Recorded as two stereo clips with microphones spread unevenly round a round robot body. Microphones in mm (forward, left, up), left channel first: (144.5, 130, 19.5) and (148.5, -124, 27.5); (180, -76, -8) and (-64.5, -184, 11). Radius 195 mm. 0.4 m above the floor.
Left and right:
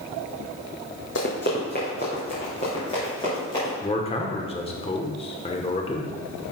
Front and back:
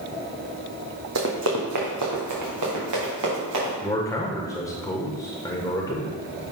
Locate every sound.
1.1 s running footsteps: 150° left, 1.2 m; by 3.7 s 170° left, 4.5 m
3.8 s a man speaking: 75° left, 0.9 m